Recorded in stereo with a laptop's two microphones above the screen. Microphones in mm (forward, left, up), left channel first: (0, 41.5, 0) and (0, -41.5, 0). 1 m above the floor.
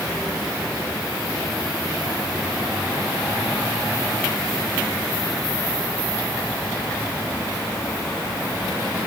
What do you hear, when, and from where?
Only background noise.